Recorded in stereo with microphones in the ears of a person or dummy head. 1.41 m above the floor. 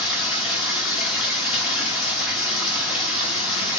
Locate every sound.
0.0 s running water: 5° right (ahead or behind), 1.5 m